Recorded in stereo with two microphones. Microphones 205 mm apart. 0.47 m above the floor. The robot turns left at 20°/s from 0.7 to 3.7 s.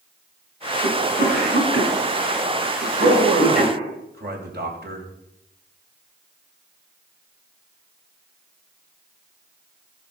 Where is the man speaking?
45° right (ahead or behind), 3 m; by 5.1 s 55° right (ahead or behind), 3 m.